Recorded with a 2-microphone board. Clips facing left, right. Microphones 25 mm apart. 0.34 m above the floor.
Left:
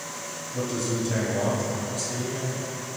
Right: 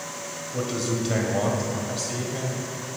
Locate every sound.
0.5 s a man speaking: 50° right (ahead or behind), 1.8 m